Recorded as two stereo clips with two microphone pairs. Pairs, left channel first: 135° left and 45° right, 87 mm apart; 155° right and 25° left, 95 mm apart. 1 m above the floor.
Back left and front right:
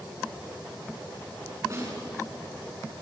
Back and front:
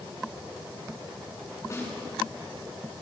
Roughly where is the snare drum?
Right.